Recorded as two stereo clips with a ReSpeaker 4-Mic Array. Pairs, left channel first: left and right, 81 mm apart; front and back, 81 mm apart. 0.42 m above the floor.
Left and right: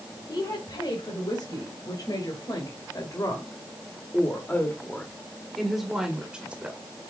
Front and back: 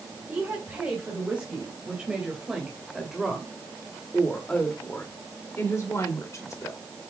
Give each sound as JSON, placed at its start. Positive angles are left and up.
{"t": 0.3, "sound": "a woman speaking", "azimuth_deg": 110, "distance_m": 3.0}